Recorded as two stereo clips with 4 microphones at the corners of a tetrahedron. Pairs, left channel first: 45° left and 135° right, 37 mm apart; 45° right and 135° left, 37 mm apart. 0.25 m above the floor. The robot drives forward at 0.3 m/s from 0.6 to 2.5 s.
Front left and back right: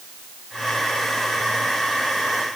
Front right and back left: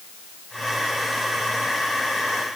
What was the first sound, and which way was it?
Only background noise.